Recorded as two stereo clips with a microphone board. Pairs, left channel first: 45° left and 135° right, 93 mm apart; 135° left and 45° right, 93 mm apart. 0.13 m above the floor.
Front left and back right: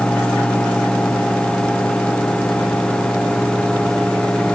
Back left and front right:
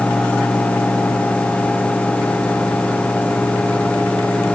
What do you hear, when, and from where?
Only background noise.